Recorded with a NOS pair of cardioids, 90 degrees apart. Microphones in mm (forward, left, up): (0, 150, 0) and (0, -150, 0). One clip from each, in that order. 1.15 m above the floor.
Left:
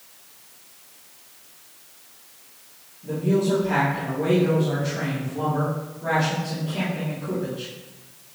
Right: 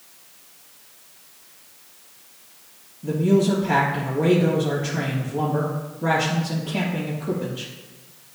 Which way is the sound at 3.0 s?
70° right.